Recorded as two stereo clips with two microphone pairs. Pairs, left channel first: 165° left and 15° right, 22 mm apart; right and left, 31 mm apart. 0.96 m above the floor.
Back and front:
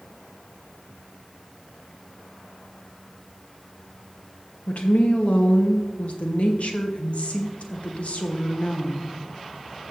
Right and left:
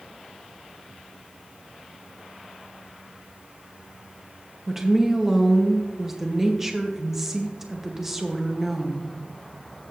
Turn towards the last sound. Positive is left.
turn(degrees=160)